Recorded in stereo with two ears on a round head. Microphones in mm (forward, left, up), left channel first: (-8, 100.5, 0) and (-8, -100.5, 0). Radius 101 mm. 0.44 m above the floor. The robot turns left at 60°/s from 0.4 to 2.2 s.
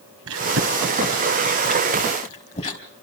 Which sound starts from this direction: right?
Chewing, at 0.3 s.